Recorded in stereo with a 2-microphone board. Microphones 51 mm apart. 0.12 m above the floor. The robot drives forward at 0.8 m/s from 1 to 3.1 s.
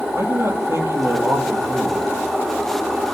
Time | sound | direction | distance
0.1 | a man speaking | 65° right (ahead or behind) | 4 m